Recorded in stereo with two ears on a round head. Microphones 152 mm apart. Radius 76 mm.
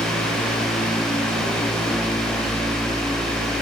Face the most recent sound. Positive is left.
No sound to turn to.